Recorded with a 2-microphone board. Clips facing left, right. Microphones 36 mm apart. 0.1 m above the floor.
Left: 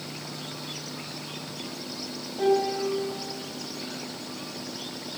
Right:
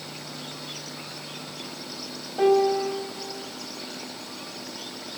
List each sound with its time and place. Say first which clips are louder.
2.4 s a piano: right 4 dB; 75° right (ahead or behind), 4.5 m